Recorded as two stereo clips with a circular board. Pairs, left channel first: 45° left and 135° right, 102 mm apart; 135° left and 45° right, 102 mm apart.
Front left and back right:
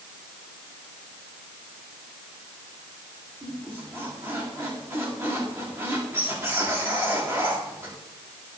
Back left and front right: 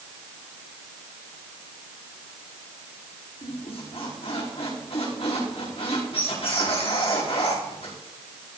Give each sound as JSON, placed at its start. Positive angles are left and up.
{"t": 3.4, "sound": "a squeak", "azimuth_deg": 155, "distance_m": 8.5}